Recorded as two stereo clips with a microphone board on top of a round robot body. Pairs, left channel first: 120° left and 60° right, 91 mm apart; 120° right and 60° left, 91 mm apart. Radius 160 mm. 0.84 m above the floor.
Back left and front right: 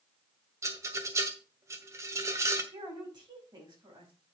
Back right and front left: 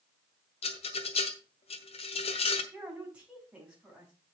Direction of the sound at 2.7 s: 20° right.